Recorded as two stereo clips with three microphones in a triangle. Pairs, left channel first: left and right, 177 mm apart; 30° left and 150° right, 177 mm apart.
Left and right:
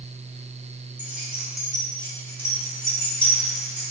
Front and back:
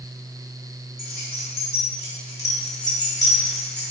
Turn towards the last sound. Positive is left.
turn(degrees=40)